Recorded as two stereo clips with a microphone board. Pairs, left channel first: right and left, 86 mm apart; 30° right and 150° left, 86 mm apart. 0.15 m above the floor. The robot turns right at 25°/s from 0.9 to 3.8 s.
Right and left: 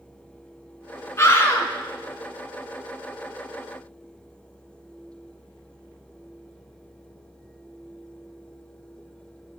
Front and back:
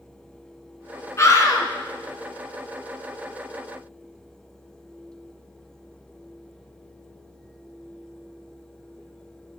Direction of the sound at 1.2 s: 55° right.